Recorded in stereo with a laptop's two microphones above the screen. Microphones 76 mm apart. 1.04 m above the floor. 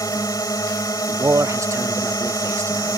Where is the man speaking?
40° right (ahead or behind).